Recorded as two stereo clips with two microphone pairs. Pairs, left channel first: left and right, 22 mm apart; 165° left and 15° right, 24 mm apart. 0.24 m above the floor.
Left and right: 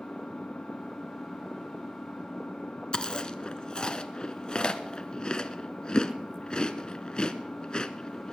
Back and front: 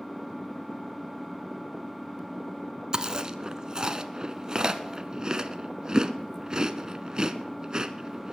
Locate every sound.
0.0 s an engine running: 80° left, 2 m
2.9 s chewing: 35° left, 0.8 m